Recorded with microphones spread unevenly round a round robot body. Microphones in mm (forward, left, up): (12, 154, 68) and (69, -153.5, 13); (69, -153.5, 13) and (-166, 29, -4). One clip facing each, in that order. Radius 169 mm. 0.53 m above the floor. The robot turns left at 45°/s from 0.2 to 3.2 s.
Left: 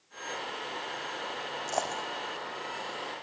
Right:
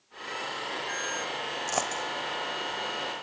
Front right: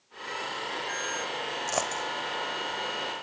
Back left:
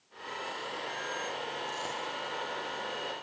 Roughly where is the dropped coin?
Ahead right.